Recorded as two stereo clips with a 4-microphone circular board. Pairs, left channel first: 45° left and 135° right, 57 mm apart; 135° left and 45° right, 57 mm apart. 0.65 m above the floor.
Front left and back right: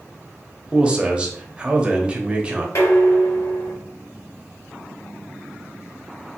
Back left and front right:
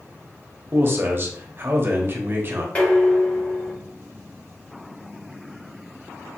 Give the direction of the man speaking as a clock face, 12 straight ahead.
2 o'clock.